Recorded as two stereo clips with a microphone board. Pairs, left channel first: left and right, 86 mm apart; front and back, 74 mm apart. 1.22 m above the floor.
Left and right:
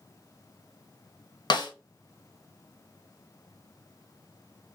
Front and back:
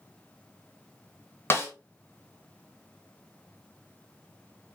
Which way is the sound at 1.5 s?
55° left.